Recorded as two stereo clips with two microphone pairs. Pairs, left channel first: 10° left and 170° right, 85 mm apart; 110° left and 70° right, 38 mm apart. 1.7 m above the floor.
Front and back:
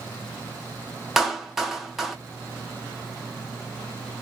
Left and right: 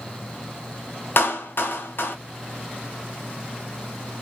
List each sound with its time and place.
1.2 s a clap: 100° left, 0.8 m